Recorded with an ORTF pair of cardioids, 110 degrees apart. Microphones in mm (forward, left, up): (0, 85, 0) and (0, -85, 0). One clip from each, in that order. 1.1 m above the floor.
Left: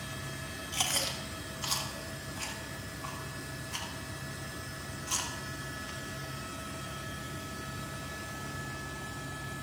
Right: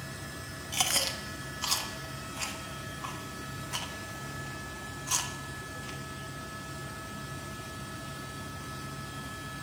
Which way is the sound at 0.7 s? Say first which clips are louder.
Right 3 dB; 20° right.